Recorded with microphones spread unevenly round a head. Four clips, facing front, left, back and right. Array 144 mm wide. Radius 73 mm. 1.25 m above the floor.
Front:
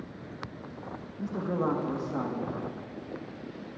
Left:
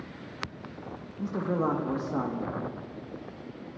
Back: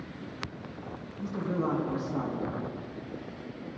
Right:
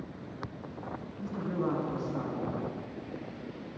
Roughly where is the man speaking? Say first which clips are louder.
Left 5 dB, front 1 dB; ahead left.